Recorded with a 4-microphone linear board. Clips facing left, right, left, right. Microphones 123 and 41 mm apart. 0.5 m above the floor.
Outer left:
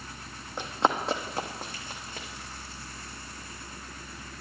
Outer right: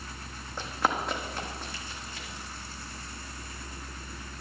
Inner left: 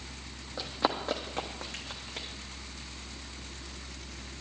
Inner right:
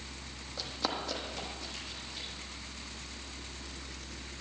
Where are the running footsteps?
15° left (ahead or behind), 1.0 m; by 2.3 s 55° left (ahead or behind), 1.4 m.